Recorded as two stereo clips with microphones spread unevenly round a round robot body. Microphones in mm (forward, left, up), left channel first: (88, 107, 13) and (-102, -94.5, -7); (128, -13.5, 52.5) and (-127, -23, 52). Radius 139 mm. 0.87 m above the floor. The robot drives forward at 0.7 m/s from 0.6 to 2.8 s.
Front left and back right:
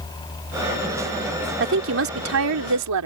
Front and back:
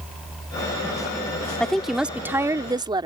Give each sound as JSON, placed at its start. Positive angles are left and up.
{"t": 1.6, "sound": "a woman speaking", "azimuth_deg": -85}